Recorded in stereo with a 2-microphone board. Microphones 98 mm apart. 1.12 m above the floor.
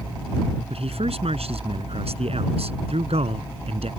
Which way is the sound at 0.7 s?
85° right.